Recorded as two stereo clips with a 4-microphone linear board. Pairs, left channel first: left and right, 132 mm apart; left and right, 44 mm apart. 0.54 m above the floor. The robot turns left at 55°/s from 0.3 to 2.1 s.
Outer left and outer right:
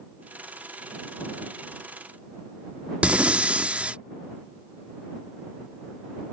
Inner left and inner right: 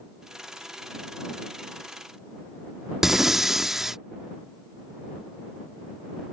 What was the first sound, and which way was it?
Breathing, 10° right (ahead or behind).